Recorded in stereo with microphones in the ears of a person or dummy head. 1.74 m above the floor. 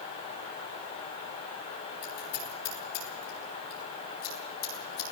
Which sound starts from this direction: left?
Scissors, at 2.0 s.